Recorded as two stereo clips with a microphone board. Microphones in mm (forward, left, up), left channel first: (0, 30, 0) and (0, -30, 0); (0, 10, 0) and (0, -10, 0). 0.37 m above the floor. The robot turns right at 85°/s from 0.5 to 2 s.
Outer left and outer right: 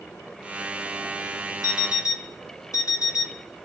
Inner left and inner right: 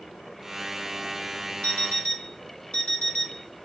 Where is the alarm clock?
85° left, 1.6 m; by 3.6 s 120° left, 1.6 m.